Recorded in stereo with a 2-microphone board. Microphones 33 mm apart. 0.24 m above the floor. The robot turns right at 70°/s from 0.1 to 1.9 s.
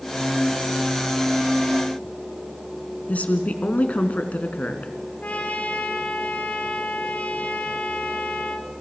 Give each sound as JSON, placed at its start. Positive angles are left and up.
{"t": 3.1, "sound": "a woman speaking", "side_deg": 50, "distance_m": 2.5}
{"t": 5.2, "sound": "a trumpet", "side_deg": 50, "distance_m": 2.0}